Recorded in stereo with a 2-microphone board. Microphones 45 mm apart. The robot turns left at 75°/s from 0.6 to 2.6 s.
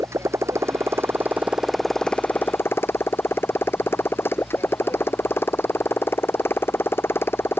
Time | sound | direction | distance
0.0 | a motorcycle | 85° right | ?